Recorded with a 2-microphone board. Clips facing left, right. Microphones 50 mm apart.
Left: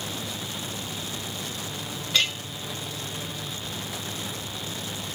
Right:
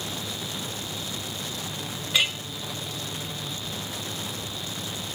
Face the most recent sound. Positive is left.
turn(degrees=-15)  # may be behind; listen again after turning